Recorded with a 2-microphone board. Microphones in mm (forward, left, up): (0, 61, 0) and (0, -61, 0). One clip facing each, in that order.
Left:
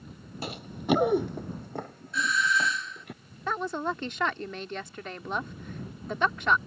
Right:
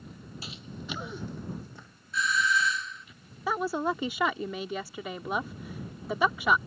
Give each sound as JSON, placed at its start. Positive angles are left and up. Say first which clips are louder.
{"t": 0.4, "sound": "running footsteps", "louder": "left 12 dB", "side_deg": 55}
{"t": 2.1, "sound": "a doorbell", "louder": "even", "side_deg": 0}
{"t": 3.5, "sound": "a woman speaking", "louder": "right 2 dB", "side_deg": -10}